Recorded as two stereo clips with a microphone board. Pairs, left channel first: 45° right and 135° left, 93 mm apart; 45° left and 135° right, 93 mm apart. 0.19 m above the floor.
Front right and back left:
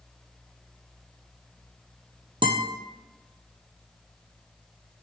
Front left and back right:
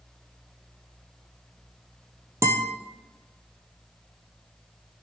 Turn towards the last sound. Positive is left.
turn(degrees=165)